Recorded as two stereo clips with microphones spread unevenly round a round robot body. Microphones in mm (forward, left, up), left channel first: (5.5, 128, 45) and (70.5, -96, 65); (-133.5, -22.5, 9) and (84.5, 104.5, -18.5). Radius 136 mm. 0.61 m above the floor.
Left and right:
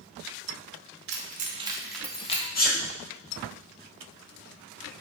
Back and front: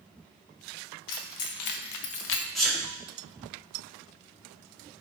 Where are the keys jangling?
120° right, 0.7 m; by 2.5 s 160° left, 0.6 m.